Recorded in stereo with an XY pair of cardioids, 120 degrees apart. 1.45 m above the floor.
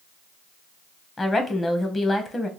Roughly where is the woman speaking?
Ahead left.